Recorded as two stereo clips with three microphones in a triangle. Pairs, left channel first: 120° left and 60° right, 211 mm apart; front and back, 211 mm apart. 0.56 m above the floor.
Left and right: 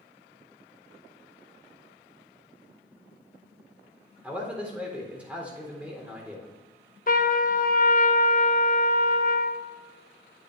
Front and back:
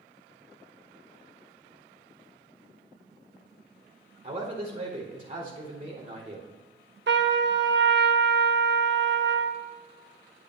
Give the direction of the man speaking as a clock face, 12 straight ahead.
5 o'clock.